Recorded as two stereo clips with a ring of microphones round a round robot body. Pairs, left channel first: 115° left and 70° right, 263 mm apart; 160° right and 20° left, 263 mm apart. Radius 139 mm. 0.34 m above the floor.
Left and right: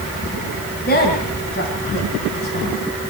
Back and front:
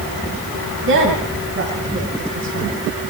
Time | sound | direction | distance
0.9 | a woman speaking | 60° left | 3 m